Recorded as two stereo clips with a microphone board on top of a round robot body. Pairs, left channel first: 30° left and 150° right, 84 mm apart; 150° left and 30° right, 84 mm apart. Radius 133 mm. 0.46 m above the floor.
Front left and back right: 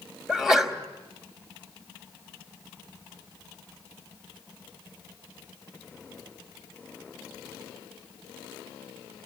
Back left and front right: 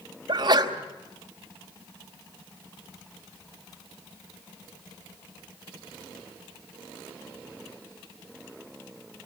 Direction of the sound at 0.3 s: 65° right.